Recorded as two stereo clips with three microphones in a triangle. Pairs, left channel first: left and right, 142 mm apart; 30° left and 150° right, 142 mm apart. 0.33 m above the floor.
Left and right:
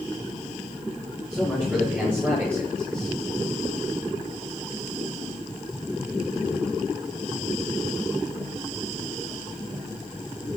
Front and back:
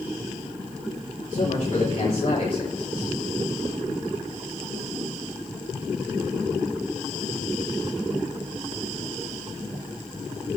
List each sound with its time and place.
1.3 s a man speaking: 5° right, 6.5 m; by 3.2 s 20° right, 5.5 m